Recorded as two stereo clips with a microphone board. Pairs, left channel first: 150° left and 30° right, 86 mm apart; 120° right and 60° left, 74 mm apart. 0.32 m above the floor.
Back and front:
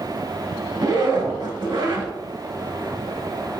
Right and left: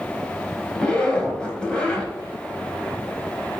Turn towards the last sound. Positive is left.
turn(degrees=-45)